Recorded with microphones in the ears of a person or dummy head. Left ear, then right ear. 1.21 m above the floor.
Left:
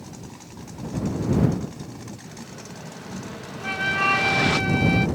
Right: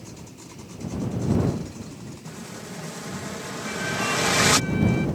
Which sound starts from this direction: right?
An explosion, at 2.2 s.